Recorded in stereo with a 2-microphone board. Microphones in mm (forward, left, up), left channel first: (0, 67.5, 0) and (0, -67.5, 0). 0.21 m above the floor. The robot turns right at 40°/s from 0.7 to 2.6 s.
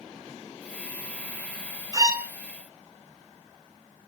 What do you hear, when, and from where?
1.9 s a violin: 30° right (ahead or behind), 0.5 m; by 2.3 s 15° right (ahead or behind), 0.5 m